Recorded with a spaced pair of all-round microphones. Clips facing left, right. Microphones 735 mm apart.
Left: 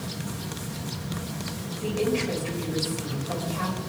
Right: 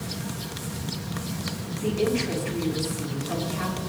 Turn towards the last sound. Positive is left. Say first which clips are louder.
# right 1 dB
turn(degrees=80)